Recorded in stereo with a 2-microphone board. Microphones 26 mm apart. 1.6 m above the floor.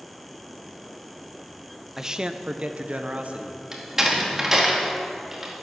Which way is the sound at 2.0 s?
15° right (ahead or behind).